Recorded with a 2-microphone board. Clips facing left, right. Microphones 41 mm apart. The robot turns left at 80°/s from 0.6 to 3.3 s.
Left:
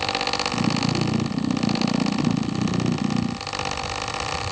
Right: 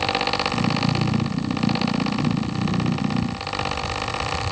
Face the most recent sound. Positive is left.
No sound to turn to.